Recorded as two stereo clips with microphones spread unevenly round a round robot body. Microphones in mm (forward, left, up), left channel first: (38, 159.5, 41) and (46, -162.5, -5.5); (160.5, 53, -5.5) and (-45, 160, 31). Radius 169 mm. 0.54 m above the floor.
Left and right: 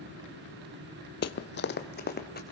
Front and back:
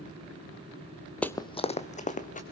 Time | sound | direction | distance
1.2 | running footsteps | 65° left | 0.7 m